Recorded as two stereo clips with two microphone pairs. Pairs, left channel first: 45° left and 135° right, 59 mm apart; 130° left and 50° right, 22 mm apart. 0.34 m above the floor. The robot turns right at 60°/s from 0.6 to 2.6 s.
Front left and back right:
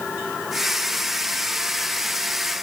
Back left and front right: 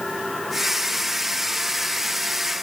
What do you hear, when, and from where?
Only background noise.